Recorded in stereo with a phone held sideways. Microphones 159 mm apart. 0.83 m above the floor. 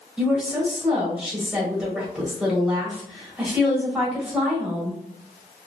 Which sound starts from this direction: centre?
A woman speaking, at 0.2 s.